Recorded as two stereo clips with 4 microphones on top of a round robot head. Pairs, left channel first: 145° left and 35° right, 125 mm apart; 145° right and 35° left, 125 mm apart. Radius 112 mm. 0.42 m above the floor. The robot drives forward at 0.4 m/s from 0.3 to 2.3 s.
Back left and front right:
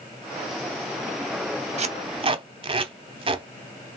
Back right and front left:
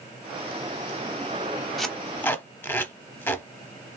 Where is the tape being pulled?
60° right, 0.8 m; by 3.5 s 75° right, 0.7 m.